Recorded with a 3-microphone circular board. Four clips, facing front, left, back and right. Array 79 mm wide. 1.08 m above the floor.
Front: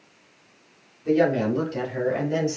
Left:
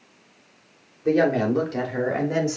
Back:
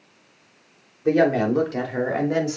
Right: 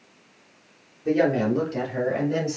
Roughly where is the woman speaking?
Behind left.